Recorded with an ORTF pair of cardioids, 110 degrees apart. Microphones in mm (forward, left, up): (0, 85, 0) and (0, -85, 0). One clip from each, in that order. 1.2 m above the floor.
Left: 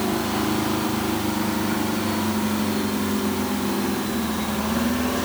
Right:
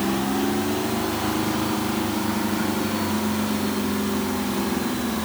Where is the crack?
No crack in this recording.